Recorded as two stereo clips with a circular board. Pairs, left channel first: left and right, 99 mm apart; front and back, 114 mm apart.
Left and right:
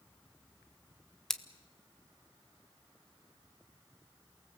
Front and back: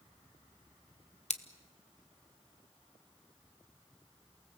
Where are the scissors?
5° left, 1.1 m.